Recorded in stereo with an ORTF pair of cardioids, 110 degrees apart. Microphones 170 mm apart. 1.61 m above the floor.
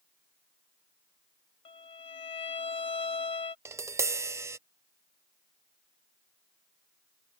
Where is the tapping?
15° right.